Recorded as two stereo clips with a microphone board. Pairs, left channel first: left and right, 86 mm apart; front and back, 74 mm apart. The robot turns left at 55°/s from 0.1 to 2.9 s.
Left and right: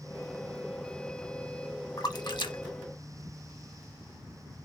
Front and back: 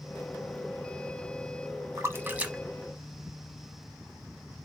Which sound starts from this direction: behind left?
A splash, at 2.0 s.